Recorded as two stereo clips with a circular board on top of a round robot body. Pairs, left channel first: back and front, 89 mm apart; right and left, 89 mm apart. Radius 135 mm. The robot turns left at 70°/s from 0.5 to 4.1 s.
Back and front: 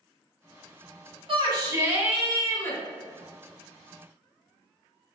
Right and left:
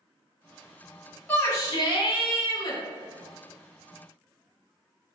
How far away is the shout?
About 1.7 m.